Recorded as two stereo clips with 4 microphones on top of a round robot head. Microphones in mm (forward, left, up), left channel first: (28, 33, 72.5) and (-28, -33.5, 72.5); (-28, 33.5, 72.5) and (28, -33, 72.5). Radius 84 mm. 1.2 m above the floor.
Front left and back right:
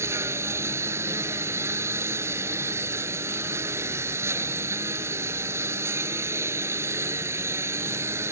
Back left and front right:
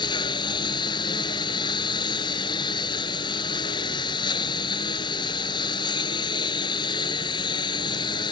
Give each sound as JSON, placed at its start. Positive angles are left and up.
{"t": 0.0, "sound": "a lawn mower", "azimuth_deg": 170}